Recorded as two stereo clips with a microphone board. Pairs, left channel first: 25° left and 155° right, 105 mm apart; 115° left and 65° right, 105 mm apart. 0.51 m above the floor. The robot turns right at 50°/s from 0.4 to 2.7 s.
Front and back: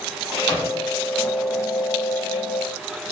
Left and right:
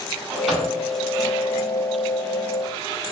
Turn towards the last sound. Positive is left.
turn(degrees=130)